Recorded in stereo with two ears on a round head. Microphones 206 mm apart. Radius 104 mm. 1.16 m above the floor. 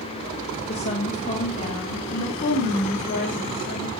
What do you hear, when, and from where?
0.7 s a woman speaking: 30° left (ahead or behind), 2.5 m; by 3.9 s 40° left (ahead or behind), 4 m